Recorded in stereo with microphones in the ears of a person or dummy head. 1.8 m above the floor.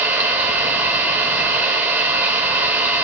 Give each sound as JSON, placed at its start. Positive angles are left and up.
{"t": 0.0, "sound": "an engine running", "side_deg": -10, "distance_m": 2.5}